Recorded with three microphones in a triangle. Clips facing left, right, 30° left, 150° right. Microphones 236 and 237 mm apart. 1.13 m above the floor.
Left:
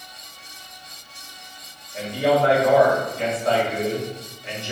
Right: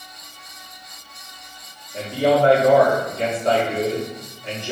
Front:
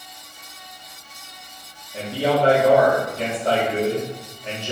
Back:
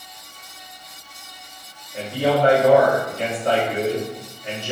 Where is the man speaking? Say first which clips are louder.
Right 2 dB, back 1 dB; 35° right, 1.7 m.